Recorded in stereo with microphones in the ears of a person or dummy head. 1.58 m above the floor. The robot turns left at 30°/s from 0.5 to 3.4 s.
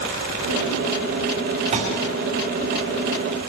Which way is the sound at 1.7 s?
35° right (ahead or behind).